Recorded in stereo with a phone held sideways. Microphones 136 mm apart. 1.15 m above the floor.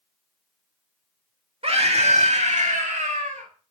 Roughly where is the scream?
Right.